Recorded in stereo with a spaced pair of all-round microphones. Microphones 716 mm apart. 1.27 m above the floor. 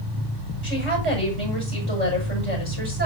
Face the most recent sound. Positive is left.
turn(degrees=-35)  # may be behind; listen again after turning